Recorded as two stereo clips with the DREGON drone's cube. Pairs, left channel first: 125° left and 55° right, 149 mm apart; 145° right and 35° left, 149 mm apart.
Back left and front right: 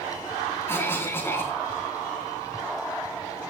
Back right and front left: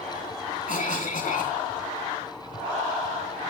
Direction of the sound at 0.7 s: 165° right.